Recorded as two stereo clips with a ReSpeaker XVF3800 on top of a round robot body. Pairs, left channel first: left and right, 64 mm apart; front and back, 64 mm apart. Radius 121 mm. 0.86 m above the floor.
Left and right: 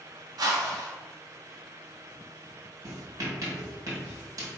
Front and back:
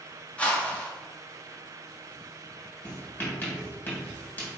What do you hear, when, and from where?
0.4 s a whoosh: 70° right, 0.9 m
2.8 s writing: 60° right, 1.9 m